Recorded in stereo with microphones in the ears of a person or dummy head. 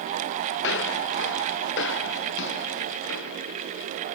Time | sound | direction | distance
0.6 | footsteps | 75° left (ahead or behind) | ?